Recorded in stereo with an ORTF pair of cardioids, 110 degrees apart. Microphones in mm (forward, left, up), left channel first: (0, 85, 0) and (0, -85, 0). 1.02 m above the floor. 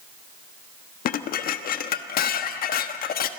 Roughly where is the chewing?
No chewing in this recording.